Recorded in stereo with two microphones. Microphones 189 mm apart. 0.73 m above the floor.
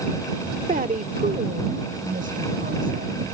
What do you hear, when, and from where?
0.7 s a woman speaking: 55° right (ahead or behind); by 3.2 s 50° right (ahead or behind)